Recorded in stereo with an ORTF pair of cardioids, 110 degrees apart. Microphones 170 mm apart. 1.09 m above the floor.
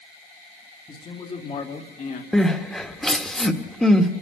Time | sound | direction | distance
0.9 | a man speaking | 25° left | 2.5 m
2.3 | crying | 5° left | 1.7 m